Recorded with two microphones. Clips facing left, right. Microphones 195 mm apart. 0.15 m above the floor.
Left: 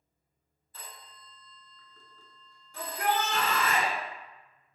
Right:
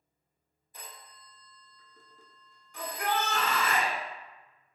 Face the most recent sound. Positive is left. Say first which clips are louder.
# left 2 dB
turn(degrees=35)  # may be behind; listen again after turning